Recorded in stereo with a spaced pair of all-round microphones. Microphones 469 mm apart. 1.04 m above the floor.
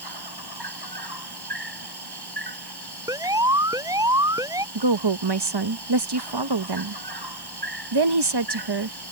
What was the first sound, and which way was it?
An insect, 55° right (ahead or behind).